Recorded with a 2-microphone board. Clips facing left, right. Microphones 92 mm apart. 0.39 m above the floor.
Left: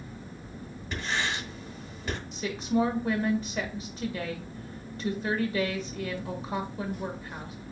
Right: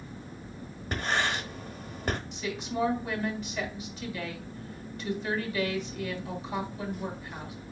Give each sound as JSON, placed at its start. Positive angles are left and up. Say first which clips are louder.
{"t": 0.9, "sound": "writing", "louder": "right 2 dB", "side_deg": -45, "distance_m": 0.8}
{"t": 2.3, "sound": "a woman speaking", "louder": "left 5 dB", "side_deg": 35, "distance_m": 1.4}